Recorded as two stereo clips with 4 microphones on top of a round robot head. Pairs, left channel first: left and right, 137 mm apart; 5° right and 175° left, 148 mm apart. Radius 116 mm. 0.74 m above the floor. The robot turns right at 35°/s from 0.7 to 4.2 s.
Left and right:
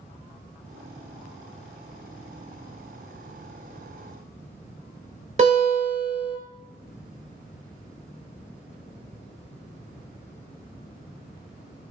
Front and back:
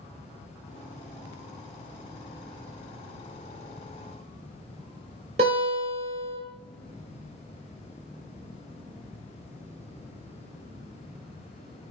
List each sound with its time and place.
5.4 s a guitar: 130° right, 1.5 m